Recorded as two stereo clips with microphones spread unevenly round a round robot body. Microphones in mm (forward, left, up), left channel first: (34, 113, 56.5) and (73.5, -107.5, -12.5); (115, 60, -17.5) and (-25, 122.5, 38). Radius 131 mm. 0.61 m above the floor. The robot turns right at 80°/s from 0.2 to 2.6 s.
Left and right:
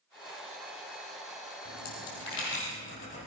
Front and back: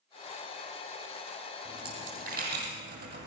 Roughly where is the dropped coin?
Left.